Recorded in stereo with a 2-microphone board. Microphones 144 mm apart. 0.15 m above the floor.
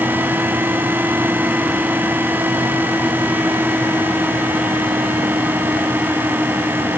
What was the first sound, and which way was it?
Only background noise.